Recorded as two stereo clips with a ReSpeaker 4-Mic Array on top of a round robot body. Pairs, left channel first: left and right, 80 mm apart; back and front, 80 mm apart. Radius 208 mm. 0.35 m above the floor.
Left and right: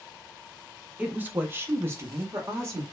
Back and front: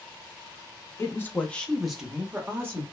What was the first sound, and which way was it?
A woman speaking, 150° right.